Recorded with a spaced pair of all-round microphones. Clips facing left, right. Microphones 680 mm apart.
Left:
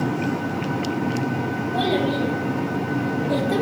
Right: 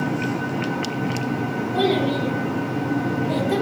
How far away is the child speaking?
About 3.5 m.